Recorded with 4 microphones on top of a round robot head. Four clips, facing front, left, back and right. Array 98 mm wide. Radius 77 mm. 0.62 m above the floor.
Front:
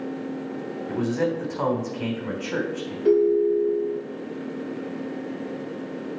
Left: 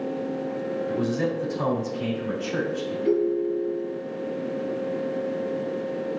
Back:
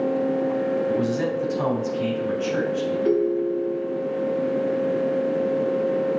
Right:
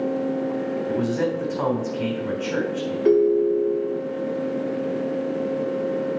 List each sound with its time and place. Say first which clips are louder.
0.9 s a man speaking: right 2 dB, back 2 dB; 40° right, 3 m
3.0 s a ringtone: right 6 dB, front 5 dB; 85° right, 1.5 m